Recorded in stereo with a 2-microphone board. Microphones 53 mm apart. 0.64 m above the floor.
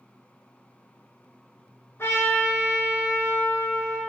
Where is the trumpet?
50° left (ahead or behind), 3.5 m.